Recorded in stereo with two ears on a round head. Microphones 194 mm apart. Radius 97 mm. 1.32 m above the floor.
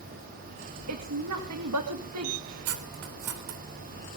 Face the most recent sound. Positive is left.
turn(degrees=-70)  # may be behind; listen again after turning